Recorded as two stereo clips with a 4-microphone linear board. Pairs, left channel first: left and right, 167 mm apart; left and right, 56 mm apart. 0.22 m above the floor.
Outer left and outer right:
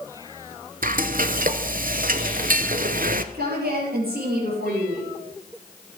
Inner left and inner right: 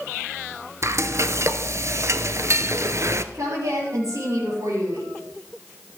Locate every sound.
0.8 s frying: 55° right (ahead or behind), 0.6 m
3.3 s a woman speaking: 65° right (ahead or behind), 4.5 m